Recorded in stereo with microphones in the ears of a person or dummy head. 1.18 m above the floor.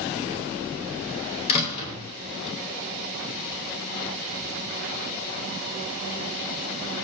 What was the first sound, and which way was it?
A door slam, 35° left (ahead or behind).